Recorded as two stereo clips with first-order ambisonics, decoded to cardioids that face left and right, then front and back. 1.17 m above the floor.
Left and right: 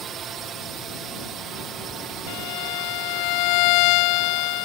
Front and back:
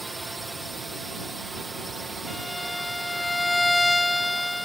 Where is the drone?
100° right; by 4.7 s 110° right.